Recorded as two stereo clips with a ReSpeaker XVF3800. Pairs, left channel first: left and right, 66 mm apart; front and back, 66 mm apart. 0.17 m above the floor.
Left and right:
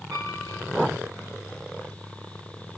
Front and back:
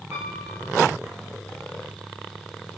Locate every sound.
0.1 s a piano: 165° right, 6.5 m